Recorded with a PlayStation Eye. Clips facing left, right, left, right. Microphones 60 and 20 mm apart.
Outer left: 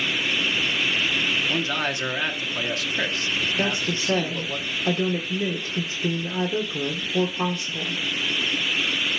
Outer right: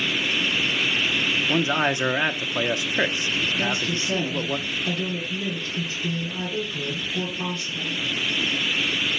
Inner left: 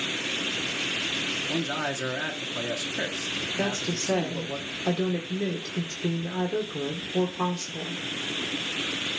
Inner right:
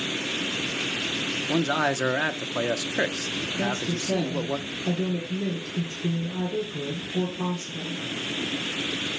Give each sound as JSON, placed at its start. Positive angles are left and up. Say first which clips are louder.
{"t": 1.5, "sound": "a man speaking", "louder": "outer right 4 dB, inner right 5 dB", "side_deg": -20, "distance_m": 0.8}
{"t": 3.6, "sound": "a woman speaking", "louder": "even, inner right 1 dB", "side_deg": 45, "distance_m": 1.7}